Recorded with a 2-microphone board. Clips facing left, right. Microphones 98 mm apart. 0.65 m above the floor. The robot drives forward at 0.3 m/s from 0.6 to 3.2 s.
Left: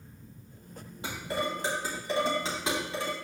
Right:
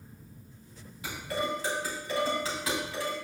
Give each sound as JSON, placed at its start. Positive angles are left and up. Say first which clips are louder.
{"t": 1.0, "sound": "dishes clattering", "louder": "even", "side_deg": 30, "distance_m": 2.5}